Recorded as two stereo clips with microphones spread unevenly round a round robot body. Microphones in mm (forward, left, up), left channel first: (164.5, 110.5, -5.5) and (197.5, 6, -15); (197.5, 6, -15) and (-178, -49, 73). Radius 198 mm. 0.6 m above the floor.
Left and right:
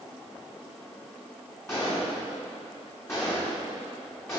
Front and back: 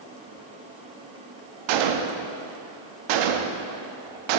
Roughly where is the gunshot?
Behind.